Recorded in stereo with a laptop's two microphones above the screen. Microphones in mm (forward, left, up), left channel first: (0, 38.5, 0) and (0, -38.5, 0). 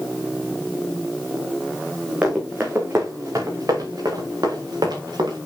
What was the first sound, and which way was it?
Running footsteps, 20° right (ahead or behind).